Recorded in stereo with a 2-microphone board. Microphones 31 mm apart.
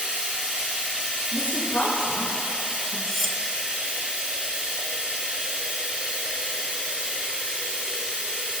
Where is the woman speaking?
55° left (ahead or behind), 4.5 m.